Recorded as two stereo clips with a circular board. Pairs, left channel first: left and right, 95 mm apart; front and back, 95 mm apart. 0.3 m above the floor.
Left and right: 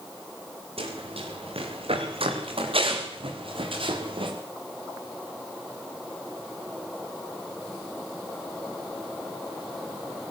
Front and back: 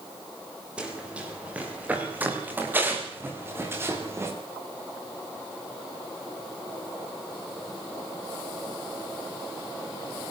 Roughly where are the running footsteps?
Right.